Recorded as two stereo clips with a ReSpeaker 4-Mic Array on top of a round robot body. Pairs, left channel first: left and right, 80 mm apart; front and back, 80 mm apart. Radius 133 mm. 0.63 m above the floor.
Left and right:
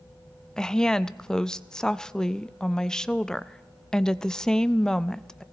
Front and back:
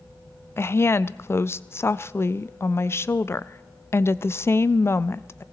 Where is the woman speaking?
15° left, 0.5 m.